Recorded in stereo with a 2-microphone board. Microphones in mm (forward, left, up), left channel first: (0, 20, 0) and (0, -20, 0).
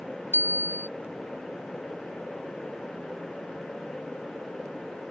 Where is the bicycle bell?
60° right (ahead or behind).